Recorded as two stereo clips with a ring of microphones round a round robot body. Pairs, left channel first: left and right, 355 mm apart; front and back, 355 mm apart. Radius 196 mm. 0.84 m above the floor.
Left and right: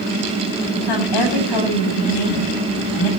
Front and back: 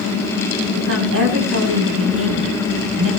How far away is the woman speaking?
About 7.5 m.